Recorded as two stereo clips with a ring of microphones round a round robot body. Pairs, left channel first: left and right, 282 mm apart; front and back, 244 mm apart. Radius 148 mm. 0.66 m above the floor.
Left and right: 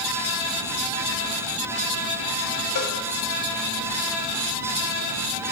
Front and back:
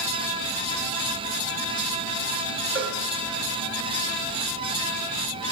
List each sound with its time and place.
2.8 s a cowbell: 145° left, 1.8 m